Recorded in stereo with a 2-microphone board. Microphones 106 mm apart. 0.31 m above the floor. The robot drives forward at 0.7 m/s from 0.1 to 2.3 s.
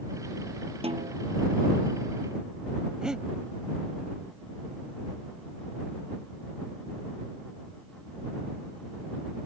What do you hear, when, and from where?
0.8 s a snare drum: 70° right (ahead or behind)
3.0 s breathing: 5° right (ahead or behind)